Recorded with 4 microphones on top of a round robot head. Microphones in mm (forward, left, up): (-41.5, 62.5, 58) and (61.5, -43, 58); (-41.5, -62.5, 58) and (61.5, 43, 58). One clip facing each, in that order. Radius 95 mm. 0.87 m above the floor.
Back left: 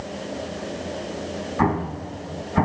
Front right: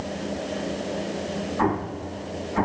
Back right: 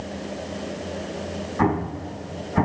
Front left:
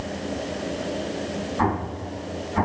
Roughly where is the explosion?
Behind.